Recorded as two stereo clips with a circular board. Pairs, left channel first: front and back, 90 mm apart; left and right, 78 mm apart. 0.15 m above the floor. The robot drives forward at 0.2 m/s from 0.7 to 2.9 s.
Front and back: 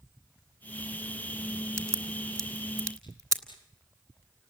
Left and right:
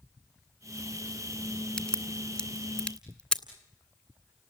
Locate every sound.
1.8 s a crack: 165° left, 1.6 m